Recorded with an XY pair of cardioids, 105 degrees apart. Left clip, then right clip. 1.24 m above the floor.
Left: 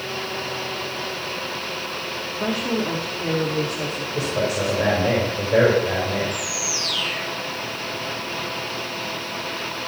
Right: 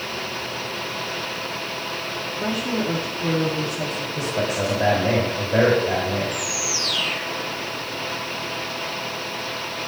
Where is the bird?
10° left, 2 m.